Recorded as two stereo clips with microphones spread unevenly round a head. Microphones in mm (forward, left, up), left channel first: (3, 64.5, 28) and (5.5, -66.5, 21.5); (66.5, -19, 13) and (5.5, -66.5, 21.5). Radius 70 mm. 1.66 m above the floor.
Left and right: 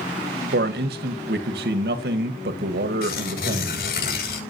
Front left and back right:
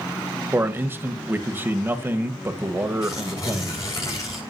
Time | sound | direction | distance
0.5 | a man speaking | 80° right | 1.6 m
3.0 | tearing paper | 105° left | 7 m